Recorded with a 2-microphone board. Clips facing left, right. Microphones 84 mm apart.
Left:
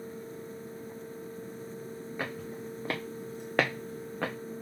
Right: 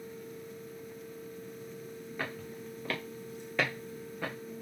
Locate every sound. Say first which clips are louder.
2.2 s footsteps: left 2 dB; 15° left (ahead or behind), 1.4 m; by 4.3 s 75° left (ahead or behind), 1.1 m